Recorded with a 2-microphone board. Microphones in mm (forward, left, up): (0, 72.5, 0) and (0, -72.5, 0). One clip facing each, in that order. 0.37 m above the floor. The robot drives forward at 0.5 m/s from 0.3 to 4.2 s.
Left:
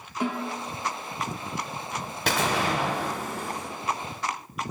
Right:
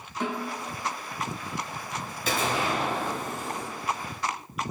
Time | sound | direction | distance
0.2 | a snare drum | 5° left (ahead or behind) | 1.4 m
2.3 | an explosion | 70° left (ahead or behind) | 0.8 m